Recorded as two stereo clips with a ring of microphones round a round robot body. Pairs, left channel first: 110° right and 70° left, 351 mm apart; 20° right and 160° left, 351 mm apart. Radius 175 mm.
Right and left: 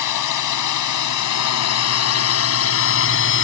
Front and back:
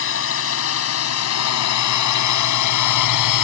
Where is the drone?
75° right; by 3.4 s 55° right.